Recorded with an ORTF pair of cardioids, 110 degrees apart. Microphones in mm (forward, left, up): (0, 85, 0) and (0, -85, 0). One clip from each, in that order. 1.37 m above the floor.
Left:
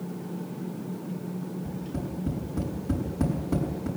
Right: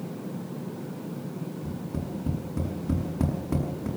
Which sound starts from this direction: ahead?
Tapping, at 1.6 s.